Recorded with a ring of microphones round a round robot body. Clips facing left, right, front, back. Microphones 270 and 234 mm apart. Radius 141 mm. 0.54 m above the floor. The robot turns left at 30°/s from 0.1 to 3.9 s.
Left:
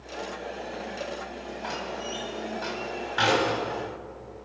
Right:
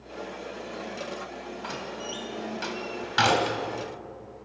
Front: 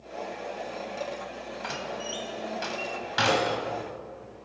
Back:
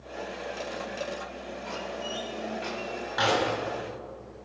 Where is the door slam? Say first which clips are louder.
Left 3 dB, even; 15° right, 2.5 m; by 3.6 s 75° right, 2.5 m.